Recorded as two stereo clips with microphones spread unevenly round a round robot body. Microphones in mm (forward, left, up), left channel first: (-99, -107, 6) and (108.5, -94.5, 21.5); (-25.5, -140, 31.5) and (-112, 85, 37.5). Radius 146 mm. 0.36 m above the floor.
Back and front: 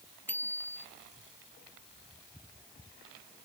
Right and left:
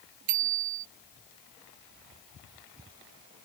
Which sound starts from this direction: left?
A bicycle bell, at 0.3 s.